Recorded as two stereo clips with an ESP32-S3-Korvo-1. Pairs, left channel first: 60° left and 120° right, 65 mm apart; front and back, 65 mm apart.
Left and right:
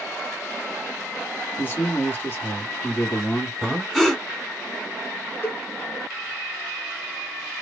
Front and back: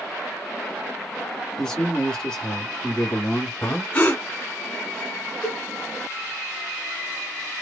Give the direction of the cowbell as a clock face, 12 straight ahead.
8 o'clock.